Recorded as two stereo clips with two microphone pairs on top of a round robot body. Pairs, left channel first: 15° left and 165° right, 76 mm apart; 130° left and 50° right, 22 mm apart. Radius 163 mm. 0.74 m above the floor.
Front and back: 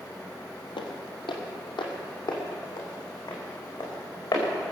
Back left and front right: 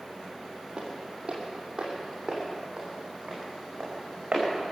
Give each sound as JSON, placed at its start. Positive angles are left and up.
{"t": 0.8, "sound": "footsteps", "azimuth_deg": 10, "distance_m": 1.5}